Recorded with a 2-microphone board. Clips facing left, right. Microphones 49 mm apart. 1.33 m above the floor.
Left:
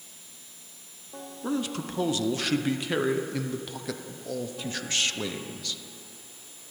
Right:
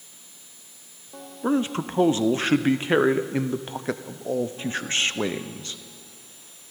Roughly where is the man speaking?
Right.